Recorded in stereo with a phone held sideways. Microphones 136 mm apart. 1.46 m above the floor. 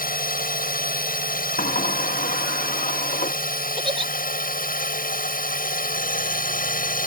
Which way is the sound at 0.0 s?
80° left.